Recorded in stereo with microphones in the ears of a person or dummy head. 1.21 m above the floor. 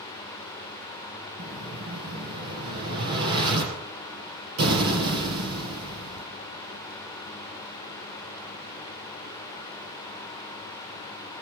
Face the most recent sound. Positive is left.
turn(degrees=-75)  # may be behind; listen again after turning